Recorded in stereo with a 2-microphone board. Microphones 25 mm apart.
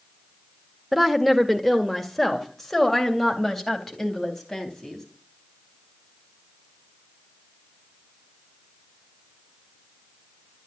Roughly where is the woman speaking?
Centre.